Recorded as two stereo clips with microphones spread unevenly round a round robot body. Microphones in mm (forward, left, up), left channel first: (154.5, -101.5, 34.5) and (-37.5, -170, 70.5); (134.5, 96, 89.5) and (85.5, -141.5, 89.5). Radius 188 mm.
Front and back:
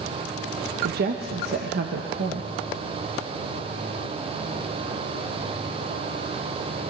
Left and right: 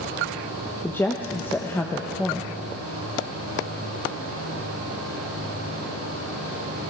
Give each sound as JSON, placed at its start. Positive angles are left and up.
{"t": 0.8, "sound": "a woman speaking", "azimuth_deg": 160, "distance_m": 1.0}